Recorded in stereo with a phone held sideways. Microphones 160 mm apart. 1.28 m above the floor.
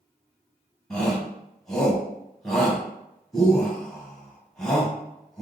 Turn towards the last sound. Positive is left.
turn(degrees=20)  # may be behind; listen again after turning